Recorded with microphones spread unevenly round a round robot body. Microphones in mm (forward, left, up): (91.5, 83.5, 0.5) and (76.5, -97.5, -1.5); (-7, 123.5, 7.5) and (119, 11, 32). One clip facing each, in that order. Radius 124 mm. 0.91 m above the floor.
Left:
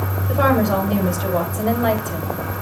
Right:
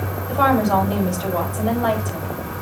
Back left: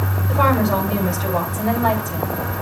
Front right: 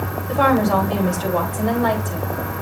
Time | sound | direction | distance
0.3 | a woman speaking | 15° left | 4.5 m